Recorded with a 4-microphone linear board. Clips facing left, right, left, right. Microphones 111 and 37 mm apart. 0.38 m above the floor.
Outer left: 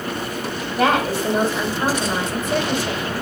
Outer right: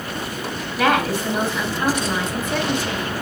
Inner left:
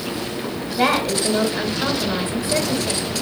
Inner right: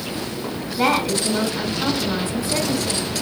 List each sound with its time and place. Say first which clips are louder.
0.8 s a woman speaking: outer left 1 dB, even; 40° left (ahead or behind), 2.5 m